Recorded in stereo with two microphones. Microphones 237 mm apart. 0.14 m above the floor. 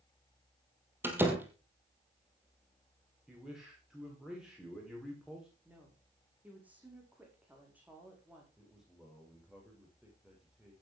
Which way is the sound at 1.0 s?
10° right (ahead or behind).